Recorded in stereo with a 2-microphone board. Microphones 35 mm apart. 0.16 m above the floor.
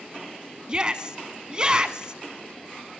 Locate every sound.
0.7 s a shout: 25° right (ahead or behind), 1.1 m